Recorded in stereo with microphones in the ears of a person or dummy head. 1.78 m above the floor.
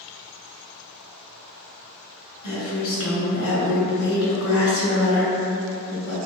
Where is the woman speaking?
80° left, 1.4 m.